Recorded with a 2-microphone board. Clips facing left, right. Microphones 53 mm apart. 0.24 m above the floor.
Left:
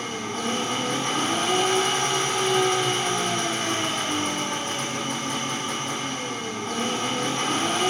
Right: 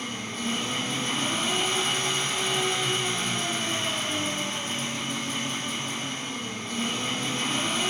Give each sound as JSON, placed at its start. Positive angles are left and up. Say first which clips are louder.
{"t": 0.0, "sound": "an engine running", "louder": "left 4 dB", "side_deg": 50, "distance_m": 5.5}